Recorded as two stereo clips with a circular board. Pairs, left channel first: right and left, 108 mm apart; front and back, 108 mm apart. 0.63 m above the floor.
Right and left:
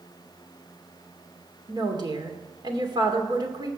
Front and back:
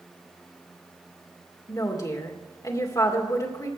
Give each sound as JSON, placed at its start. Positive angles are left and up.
{"t": 1.7, "sound": "a woman speaking", "azimuth_deg": 50, "distance_m": 2.0}